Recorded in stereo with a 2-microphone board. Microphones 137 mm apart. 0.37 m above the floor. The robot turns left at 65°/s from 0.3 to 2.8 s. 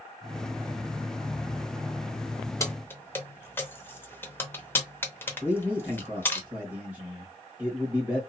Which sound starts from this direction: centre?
A man speaking, at 5.4 s.